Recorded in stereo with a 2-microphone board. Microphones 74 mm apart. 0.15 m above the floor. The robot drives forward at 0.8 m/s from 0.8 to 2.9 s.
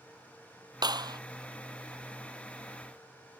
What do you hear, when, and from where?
0.8 s a clap: 70° right (ahead or behind); by 1.2 s 65° right (ahead or behind)